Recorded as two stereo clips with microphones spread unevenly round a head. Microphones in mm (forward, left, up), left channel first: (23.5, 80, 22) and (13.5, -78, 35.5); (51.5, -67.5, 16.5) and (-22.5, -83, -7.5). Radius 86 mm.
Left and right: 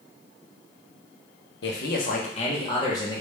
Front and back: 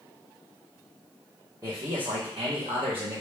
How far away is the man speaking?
About 0.7 m.